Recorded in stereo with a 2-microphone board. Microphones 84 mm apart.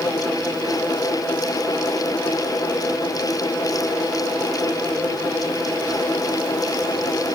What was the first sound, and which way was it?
Only background noise.